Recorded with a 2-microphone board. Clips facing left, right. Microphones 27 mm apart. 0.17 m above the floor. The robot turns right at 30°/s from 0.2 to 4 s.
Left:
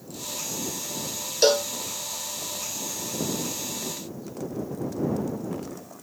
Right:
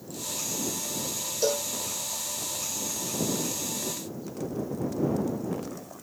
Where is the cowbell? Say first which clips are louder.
Left 7 dB; 85° left; by 1.7 s 80° left.